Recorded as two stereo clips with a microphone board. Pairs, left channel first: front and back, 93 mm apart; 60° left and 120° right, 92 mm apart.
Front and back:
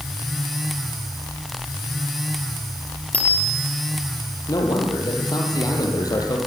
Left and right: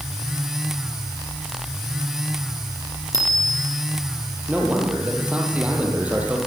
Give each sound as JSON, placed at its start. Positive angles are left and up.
{"t": 3.1, "sound": "a bicycle bell", "azimuth_deg": -75, "distance_m": 5.0}
{"t": 4.5, "sound": "a man speaking", "azimuth_deg": -45, "distance_m": 6.0}